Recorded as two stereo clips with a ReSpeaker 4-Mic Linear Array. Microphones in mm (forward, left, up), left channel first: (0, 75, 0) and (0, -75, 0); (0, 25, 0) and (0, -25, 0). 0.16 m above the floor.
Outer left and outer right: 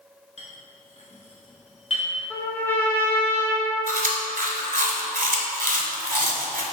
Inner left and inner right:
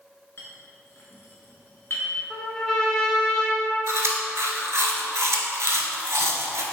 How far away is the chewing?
About 0.7 m.